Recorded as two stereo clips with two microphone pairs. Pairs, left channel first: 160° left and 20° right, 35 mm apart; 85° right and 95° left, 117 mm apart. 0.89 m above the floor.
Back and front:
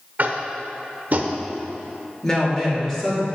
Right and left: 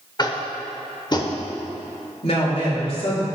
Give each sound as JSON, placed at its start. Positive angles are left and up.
{"t": 0.2, "sound": "tapping", "azimuth_deg": -40, "distance_m": 0.8}
{"t": 2.2, "sound": "a woman speaking", "azimuth_deg": -120, "distance_m": 2.5}